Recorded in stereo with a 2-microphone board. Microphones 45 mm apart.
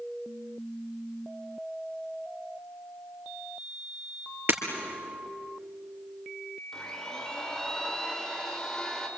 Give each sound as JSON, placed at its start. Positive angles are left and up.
{"t": 4.5, "sound": "breaking glass", "side_deg": -55, "distance_m": 3.5}
{"t": 6.7, "sound": "a blender", "side_deg": 10, "distance_m": 3.5}